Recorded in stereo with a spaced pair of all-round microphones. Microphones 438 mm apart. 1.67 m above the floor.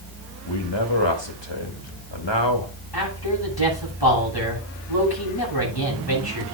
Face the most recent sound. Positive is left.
turn(degrees=60)  # may be behind; listen again after turning